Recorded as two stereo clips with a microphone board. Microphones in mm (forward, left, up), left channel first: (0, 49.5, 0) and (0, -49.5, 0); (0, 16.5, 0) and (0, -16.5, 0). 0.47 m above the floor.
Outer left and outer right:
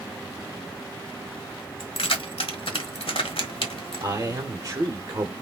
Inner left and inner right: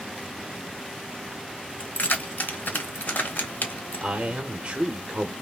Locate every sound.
1.8 s keys jangling: 65° left (ahead or behind), 1.2 m
4.0 s a man speaking: 30° right (ahead or behind), 1.0 m